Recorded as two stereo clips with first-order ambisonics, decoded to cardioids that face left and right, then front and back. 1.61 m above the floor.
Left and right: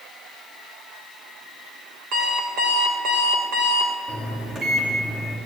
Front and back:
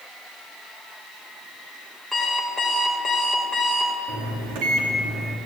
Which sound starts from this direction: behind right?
A microwave, at 4.1 s.